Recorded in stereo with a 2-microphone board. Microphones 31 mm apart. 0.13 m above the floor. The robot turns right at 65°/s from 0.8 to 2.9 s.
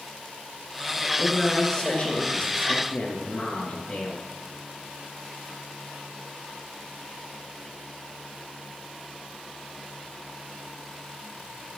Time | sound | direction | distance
1.2 | a man speaking | 5° left | 2.0 m